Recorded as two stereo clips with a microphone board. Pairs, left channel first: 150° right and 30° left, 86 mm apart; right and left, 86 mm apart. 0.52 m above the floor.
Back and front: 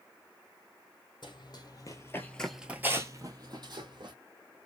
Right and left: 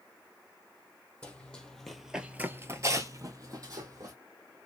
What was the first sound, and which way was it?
Running footsteps, 165° right.